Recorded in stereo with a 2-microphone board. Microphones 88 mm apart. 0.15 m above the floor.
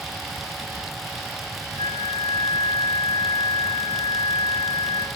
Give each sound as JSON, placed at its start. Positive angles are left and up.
{"t": 1.8, "sound": "a flute", "side_deg": 85, "distance_m": 3.0}